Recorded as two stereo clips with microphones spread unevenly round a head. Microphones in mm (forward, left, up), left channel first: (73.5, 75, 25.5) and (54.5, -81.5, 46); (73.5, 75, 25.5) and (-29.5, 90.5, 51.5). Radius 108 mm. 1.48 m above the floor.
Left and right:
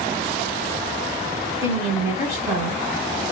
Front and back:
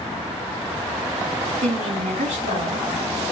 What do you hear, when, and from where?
1.6 s a woman speaking: straight behind, 2.5 m